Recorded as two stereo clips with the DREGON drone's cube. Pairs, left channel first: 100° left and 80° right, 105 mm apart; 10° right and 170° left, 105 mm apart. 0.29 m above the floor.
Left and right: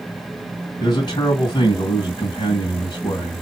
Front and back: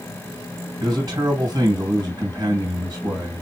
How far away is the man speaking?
About 1.9 m.